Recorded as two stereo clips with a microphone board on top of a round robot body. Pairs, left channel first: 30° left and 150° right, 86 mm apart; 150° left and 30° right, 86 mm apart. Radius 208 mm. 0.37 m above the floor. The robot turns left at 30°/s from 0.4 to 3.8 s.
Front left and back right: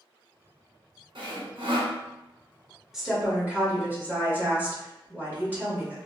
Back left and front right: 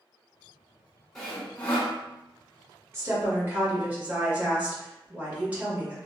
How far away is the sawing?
About 1.1 m.